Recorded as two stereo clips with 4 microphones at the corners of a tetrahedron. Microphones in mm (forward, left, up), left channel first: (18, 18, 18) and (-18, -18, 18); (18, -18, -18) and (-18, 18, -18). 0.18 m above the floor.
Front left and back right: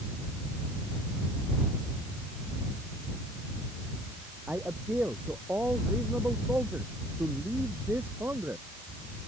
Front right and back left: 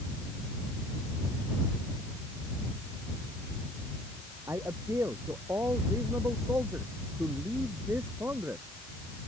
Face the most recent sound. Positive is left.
turn(degrees=180)